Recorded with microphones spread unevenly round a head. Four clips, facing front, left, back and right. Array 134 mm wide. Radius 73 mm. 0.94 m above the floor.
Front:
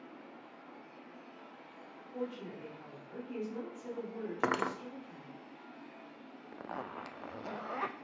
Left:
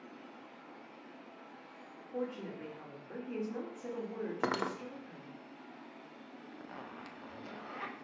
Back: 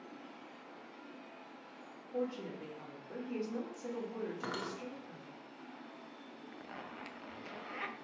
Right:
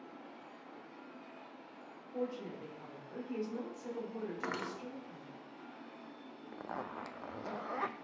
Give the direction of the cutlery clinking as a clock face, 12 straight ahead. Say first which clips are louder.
Left 9 dB, front 8 dB; 11 o'clock.